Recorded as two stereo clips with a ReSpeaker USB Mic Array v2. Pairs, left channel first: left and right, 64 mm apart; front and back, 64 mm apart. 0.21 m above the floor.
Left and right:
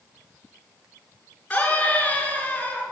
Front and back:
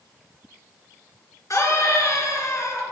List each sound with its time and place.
1.5 s a scream: 30° left, 3 m